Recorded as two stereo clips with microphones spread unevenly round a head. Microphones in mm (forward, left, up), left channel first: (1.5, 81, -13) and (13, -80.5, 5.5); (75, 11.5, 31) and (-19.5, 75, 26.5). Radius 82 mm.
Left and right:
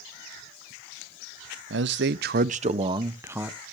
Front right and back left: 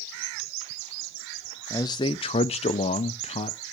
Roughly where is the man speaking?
Right.